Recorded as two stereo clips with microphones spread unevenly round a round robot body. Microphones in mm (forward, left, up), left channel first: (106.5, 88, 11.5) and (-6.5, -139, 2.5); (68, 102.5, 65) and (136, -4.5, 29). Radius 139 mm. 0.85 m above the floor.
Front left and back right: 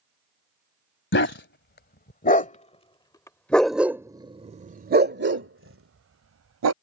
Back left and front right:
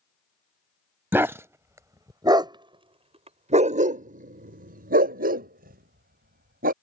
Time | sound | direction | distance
1.1 | a dog barking | 20° left | ?